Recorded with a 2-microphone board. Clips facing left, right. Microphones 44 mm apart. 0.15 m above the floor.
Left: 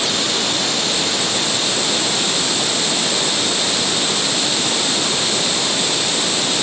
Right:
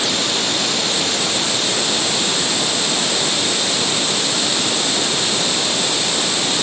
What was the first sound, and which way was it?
Only background noise.